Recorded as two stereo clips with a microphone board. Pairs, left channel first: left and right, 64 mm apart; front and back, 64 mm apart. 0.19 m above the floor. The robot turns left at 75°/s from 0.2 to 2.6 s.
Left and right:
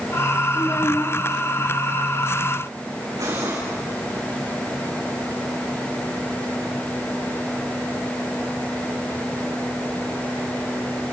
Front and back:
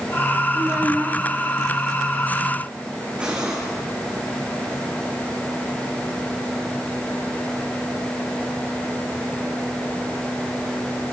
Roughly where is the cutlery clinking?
Right.